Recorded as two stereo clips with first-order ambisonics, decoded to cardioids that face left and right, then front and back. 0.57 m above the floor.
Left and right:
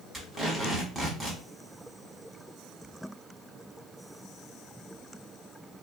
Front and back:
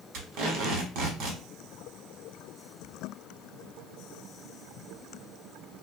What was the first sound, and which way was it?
Tape being pulled, 170° right.